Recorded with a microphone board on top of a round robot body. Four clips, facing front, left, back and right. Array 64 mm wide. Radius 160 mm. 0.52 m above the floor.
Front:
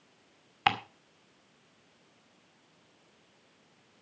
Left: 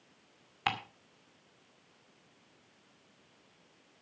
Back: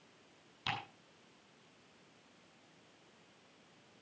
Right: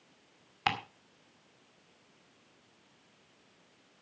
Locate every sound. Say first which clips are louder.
0.7 s ticking: right 2 dB, front 13 dB; 5° right, 2.5 m